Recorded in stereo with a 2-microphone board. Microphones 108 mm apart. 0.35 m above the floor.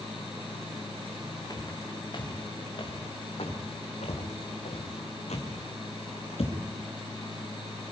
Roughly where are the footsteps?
Left.